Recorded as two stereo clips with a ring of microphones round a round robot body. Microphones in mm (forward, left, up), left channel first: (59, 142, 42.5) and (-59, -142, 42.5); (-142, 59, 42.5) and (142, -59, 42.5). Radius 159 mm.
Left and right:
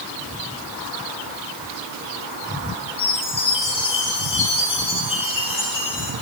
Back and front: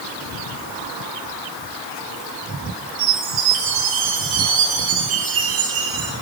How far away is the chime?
About 6 m.